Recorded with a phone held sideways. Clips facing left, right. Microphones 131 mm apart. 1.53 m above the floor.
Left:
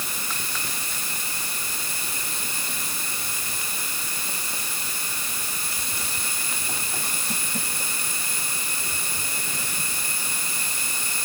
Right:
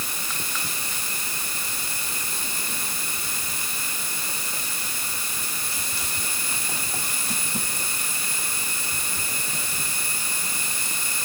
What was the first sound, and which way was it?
Only background noise.